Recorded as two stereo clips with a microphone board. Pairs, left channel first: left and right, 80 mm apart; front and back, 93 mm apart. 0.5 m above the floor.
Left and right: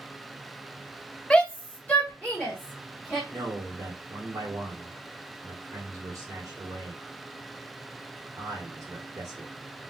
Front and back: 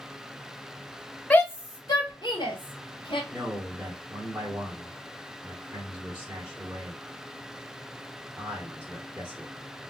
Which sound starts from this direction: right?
A man speaking, at 3.3 s.